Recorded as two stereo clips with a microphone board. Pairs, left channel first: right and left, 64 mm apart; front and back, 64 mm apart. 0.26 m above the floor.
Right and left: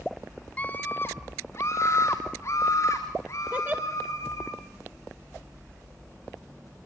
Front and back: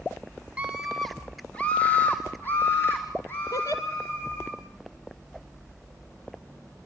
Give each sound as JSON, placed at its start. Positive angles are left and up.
{"t": 0.6, "sound": "a scream", "azimuth_deg": -125, "distance_m": 1.1}
{"t": 3.5, "sound": "a giggle", "azimuth_deg": 30, "distance_m": 2.0}